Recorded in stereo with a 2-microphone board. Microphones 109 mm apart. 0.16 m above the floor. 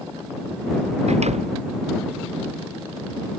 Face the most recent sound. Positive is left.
turn(degrees=-75)  # may be behind; listen again after turning